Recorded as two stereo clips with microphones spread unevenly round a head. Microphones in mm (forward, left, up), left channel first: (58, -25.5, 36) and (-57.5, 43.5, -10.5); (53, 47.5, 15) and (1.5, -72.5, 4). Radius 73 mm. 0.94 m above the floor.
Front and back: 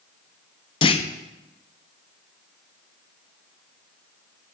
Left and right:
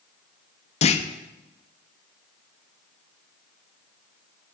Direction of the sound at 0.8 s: 30° left.